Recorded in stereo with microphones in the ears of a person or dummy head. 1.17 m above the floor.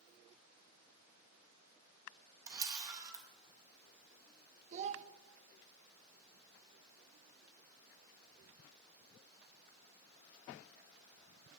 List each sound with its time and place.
2.5 s a camera shutter: 20° right (ahead or behind), 1.4 m
4.7 s a child speaking: 35° right (ahead or behind), 0.8 m